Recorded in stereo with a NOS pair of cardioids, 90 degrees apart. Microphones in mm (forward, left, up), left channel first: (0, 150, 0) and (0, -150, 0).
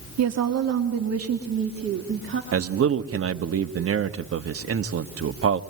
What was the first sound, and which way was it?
A woman speaking, 60° right.